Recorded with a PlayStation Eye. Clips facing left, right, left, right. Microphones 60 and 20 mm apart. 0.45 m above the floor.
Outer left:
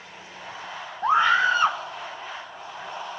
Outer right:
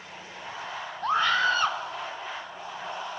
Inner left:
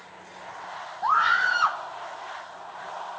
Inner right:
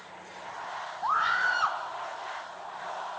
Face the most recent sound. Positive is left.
turn(degrees=20)  # may be behind; listen again after turning